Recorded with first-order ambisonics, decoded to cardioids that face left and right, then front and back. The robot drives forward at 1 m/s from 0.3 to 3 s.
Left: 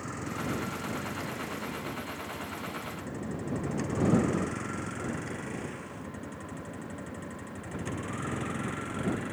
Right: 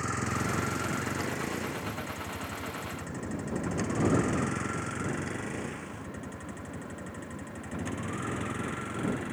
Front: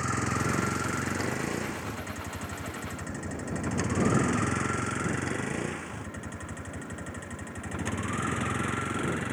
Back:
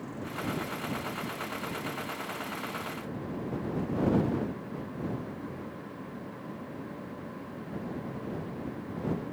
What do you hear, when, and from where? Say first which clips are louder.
0.0 s a vehicle: right 5 dB, front 8 dB; 25° right; by 9.3 s straight ahead